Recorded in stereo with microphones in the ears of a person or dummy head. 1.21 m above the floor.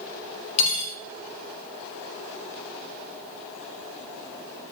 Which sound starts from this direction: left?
Cutlery clinking, at 0.6 s.